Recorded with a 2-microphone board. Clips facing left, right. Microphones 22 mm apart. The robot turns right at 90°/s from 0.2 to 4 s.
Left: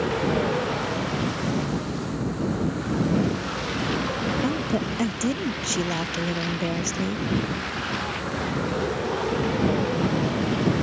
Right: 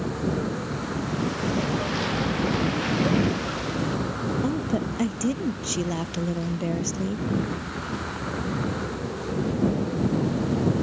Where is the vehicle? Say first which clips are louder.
Left 4 dB; 65° left; by 10.8 s 50° left.